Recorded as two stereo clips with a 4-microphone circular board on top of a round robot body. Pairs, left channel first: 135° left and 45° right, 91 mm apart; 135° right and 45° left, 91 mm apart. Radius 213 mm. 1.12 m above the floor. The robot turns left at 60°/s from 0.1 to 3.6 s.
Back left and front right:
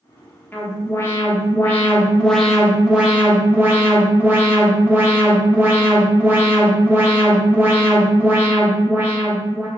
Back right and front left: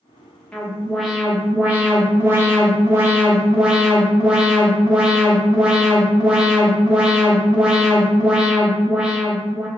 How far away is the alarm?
About 1.3 m.